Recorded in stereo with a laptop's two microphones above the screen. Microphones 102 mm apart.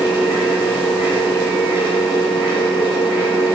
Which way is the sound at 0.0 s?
55° left (ahead or behind).